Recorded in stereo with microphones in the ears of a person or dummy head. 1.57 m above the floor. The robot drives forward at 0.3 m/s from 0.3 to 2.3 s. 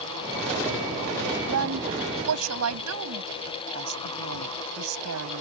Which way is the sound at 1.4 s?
85° right.